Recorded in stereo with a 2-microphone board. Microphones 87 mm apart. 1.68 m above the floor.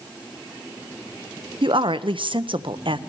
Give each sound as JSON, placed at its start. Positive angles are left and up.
{"t": 1.6, "sound": "a woman speaking", "side_deg": -75, "distance_m": 0.9}